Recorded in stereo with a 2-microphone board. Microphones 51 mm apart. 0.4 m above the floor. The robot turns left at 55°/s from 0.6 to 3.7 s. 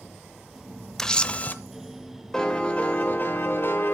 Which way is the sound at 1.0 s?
170° left.